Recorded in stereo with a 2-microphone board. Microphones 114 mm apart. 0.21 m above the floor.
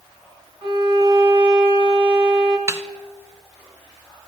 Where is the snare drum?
25° right (ahead or behind), 1.0 m.